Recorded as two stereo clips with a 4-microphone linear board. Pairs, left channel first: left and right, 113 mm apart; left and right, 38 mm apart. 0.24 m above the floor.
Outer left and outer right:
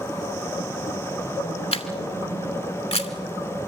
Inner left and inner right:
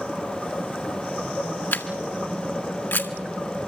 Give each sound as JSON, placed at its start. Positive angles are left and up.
{"t": 1.7, "sound": "a camera shutter", "side_deg": 60, "distance_m": 1.7}